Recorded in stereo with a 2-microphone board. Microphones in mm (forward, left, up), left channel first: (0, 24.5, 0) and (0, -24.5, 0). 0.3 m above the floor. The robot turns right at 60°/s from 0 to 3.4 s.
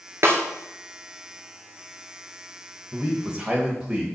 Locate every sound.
0.2 s a snare drum: 55° right (ahead or behind), 1.6 m; by 0.4 s 65° right (ahead or behind), 1.6 m
2.9 s a man speaking: 20° right (ahead or behind), 1.3 m; by 4.1 s 15° right (ahead or behind), 1.3 m